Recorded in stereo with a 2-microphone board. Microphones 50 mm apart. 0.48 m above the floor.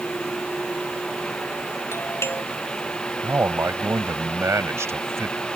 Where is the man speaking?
65° right (ahead or behind).